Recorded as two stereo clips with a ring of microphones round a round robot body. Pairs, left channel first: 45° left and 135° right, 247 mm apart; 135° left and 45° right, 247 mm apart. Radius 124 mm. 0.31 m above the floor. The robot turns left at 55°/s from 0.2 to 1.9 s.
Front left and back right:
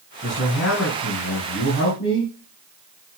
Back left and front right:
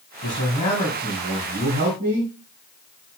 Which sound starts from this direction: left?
A man speaking, at 0.2 s.